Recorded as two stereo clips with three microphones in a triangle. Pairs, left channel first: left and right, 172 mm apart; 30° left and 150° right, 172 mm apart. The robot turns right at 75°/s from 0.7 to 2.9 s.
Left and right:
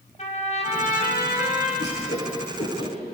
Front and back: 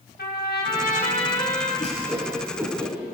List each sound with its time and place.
0.2 s a trumpet: 45° left, 3.5 m; by 1.7 s 115° left, 3.5 m
1.8 s a whoosh: 70° left, 9 m; by 2.9 s 155° left, 9 m